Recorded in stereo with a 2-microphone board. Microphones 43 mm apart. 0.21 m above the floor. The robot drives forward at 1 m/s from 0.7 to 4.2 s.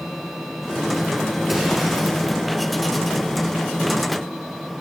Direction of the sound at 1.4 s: 5° right (ahead or behind).